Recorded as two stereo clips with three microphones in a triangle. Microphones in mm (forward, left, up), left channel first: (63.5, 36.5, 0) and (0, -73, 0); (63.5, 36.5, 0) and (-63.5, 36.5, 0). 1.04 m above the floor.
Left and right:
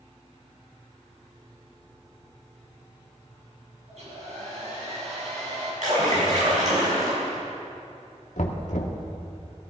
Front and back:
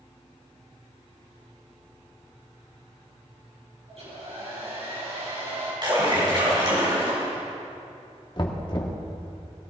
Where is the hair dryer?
145° right, 6 m.